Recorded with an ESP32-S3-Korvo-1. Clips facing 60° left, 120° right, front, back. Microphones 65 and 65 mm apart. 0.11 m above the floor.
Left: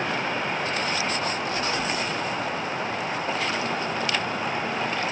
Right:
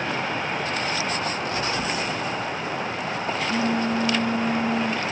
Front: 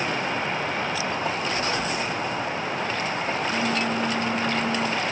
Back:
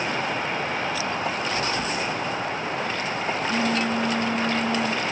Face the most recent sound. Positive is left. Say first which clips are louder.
# right 1 dB, even
turn(degrees=-135)